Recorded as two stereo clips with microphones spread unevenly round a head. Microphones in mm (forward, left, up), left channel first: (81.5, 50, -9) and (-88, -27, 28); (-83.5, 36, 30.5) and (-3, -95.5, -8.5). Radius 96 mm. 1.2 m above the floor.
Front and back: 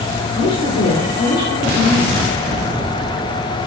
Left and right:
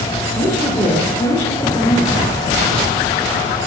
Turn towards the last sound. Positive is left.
turn(degrees=55)